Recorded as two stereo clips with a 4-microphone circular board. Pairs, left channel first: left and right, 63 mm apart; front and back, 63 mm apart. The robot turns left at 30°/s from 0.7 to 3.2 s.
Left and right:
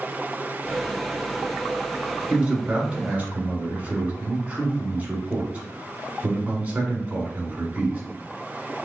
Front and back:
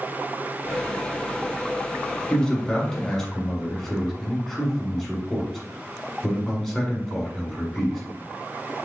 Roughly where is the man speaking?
Ahead right.